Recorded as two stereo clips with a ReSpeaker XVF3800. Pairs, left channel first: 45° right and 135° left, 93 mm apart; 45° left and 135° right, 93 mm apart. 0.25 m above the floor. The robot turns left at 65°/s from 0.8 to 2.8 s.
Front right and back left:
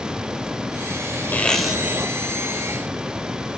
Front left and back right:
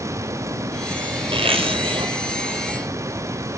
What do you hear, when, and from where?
1.3 s a zipper: 115° right, 2 m; by 2.1 s 170° right, 2 m